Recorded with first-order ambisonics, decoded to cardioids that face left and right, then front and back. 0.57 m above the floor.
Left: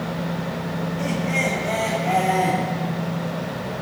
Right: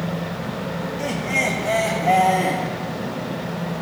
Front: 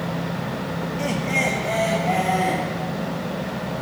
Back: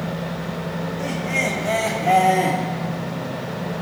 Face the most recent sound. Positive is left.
turn(degrees=-160)